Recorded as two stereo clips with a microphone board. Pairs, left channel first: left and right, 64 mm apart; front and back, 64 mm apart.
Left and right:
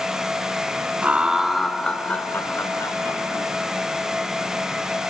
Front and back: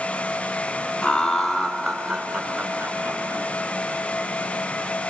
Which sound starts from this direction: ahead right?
Laughter, at 1.0 s.